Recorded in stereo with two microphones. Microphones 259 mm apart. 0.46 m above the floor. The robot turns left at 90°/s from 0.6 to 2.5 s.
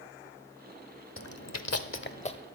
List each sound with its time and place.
1.2 s chewing: 55° left (ahead or behind), 0.6 m; by 2.4 s 15° left (ahead or behind), 0.6 m